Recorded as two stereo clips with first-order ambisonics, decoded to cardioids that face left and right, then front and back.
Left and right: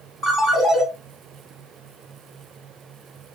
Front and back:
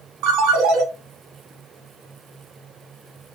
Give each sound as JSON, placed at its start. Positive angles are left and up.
{"t": 0.2, "sound": "a ringtone", "azimuth_deg": 180, "distance_m": 3.5}